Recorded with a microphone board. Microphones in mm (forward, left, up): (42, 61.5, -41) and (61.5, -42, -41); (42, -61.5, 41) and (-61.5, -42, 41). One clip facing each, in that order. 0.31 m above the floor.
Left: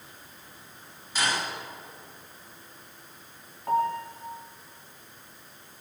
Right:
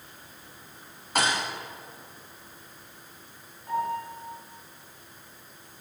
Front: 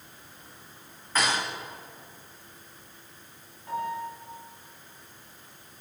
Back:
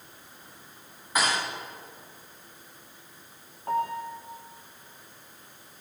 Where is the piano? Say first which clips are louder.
Left 3 dB, back 4 dB; 130° left, 9 m.